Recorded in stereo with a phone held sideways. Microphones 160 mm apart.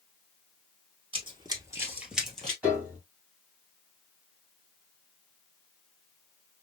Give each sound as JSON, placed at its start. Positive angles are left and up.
{"t": 1.1, "sound": "running footsteps", "side_deg": -35, "distance_m": 1.8}
{"t": 2.6, "sound": "a piano", "side_deg": -10, "distance_m": 2.0}